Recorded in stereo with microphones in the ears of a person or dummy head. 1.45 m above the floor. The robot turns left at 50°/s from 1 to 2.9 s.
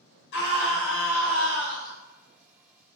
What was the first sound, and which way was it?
A scream, 70° left.